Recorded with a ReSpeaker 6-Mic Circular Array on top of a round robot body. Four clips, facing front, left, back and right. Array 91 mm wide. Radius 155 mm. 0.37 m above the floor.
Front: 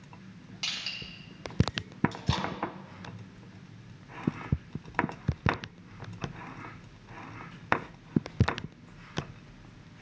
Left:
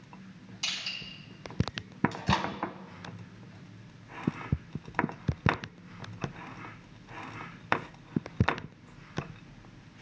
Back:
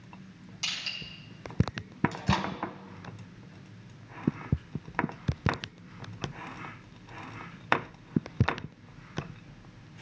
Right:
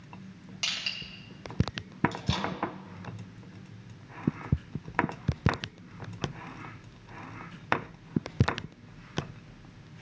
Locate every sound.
0.6 s crushing: 75° right, 2.5 m
2.1 s a microwave: 130° left, 1.0 m